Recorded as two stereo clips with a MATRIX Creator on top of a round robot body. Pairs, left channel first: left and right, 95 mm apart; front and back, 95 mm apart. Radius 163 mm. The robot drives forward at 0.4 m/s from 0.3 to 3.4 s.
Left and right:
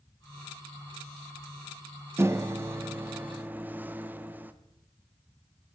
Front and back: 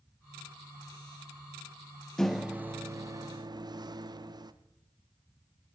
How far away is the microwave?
About 0.6 m.